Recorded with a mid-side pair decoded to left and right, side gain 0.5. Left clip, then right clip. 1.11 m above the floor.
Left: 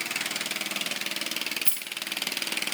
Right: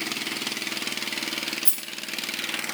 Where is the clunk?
No clunk in this recording.